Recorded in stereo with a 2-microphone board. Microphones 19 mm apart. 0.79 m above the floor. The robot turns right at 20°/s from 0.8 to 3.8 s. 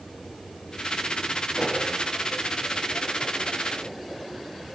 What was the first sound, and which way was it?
A pop, 15° right (ahead or behind).